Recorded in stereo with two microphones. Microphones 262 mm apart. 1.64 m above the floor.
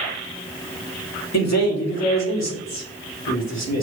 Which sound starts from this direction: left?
A man speaking, at 1.3 s.